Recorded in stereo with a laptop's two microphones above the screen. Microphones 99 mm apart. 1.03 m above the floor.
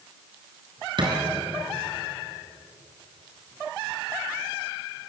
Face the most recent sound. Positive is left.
turn(degrees=-50)  # may be behind; listen again after turning